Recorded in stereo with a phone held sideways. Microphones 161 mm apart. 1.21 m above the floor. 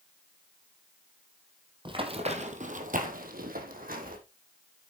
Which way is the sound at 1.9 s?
30° right (ahead or behind).